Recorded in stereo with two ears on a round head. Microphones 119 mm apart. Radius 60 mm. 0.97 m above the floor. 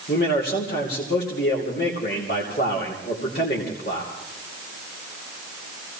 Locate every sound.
0.1 s a man speaking: 80° left, 2.5 m